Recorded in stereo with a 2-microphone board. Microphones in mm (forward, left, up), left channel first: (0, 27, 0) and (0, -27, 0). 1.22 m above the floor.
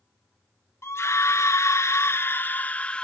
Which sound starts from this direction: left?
A scream, at 0.8 s.